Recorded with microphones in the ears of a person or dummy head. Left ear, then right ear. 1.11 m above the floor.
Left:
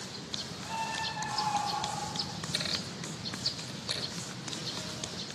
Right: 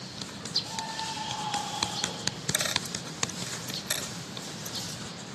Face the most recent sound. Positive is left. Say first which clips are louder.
# right 2 dB
turn(degrees=-30)  # may be behind; listen again after turning